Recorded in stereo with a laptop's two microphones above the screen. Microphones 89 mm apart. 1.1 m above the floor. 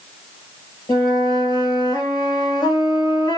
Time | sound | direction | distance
0.9 | a flute | 55° left (ahead or behind) | 1.3 m